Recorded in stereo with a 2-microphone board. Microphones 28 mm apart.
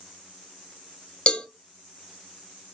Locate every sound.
1.3 s a cowbell: 35° left (ahead or behind), 0.6 m